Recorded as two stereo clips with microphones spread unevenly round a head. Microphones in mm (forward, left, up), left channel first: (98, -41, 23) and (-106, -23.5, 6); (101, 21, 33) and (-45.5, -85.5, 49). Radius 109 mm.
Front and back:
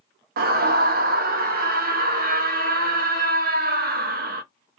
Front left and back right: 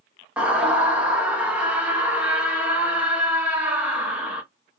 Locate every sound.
0.4 s a scream: 130° left, 0.7 m